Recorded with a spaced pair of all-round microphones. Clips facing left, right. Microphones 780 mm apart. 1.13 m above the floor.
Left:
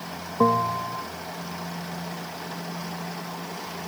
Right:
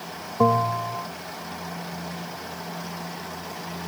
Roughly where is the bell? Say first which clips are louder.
Right 1 dB; right.